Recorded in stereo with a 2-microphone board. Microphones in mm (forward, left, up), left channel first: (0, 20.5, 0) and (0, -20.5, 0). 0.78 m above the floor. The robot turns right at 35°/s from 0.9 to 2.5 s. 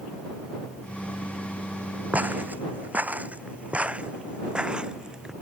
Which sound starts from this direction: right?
Footsteps, at 2.1 s.